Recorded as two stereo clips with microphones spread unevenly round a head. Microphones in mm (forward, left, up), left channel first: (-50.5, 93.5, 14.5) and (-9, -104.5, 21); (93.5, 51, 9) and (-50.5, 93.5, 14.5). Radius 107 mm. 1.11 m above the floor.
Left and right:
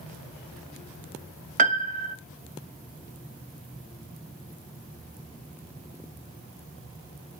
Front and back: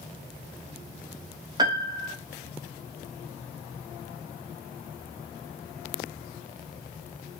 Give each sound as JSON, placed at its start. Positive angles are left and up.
{"t": 1.6, "sound": "a piano", "azimuth_deg": -130, "distance_m": 0.6}